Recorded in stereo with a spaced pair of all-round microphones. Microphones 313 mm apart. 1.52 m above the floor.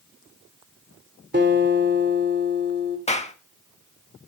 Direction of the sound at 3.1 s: 20° left (ahead or behind).